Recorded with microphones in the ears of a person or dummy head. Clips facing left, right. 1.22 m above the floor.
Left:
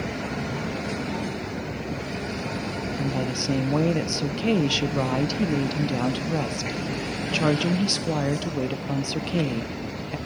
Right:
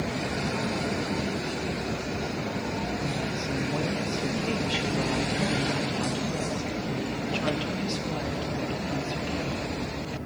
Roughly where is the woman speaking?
Left.